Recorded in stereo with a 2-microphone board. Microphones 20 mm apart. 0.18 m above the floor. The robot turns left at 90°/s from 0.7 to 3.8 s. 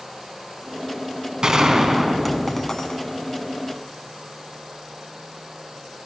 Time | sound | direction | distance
1.4 | a gunshot | 95° right | 1.1 m